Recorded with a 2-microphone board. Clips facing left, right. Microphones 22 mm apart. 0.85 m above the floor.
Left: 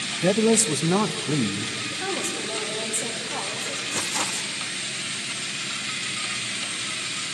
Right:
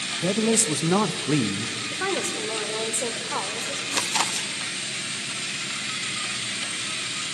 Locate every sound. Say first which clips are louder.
0.2 s a man speaking: left 3 dB; 30° left (ahead or behind), 0.7 m; by 1.8 s 40° right (ahead or behind), 0.8 m
1.9 s a woman speaking: right 4 dB; 60° right (ahead or behind), 3 m
3.9 s chewing: right 4 dB; 55° right (ahead or behind), 1.0 m